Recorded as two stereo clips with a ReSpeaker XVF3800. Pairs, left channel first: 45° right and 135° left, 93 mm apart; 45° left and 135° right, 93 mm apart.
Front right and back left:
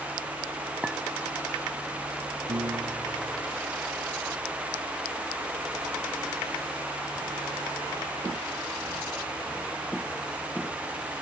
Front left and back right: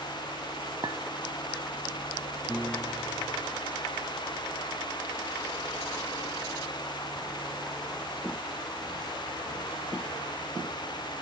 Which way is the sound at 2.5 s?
135° left.